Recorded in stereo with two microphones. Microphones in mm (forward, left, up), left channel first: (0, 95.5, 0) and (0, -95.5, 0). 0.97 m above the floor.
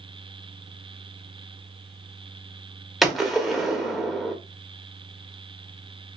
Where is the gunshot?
Centre (ahead or behind), 0.9 m.